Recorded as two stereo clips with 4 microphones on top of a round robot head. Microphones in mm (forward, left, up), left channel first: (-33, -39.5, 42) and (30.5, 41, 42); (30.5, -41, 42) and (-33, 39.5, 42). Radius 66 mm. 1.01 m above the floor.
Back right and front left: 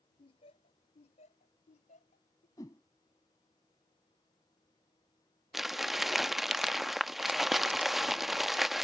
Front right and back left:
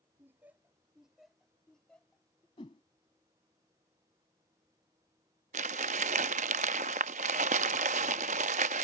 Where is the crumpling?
140° left.